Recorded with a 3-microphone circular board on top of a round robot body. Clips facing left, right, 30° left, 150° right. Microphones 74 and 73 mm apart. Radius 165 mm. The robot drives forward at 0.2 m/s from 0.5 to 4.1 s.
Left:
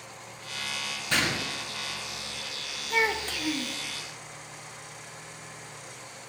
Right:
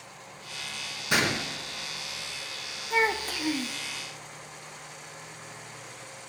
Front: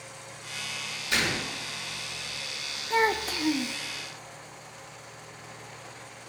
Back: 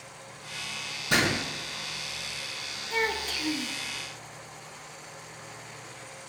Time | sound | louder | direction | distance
1.1 | a gunshot | right 2 dB, back 3 dB | 165° right | 3.5 m
2.9 | a child speaking | right 1 dB, front 5 dB | 10° right | 1.1 m